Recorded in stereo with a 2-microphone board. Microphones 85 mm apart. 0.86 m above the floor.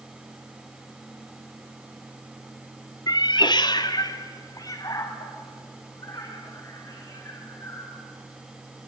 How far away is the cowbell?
I don't hear a cowbell.